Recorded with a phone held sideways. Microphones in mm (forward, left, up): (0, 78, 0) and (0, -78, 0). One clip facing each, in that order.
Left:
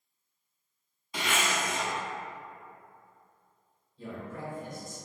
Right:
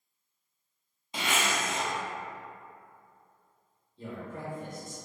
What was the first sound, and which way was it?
A zipper, 25° right (ahead or behind).